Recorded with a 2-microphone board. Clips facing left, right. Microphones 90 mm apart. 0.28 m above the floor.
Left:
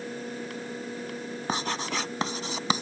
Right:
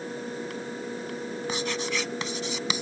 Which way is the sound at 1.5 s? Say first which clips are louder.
Left 1 dB; 45° left (ahead or behind).